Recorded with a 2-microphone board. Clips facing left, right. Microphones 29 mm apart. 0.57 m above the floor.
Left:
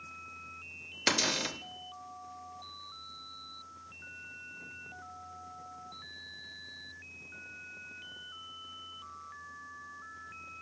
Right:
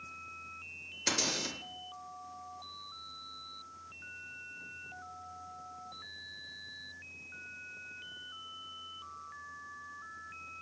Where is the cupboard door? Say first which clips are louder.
Left 4 dB; 35° left (ahead or behind), 0.5 m.